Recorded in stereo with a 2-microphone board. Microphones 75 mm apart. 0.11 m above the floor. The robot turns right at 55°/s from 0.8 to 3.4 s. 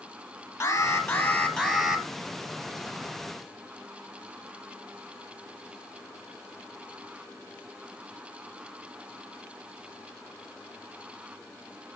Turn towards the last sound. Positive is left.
turn(degrees=-90)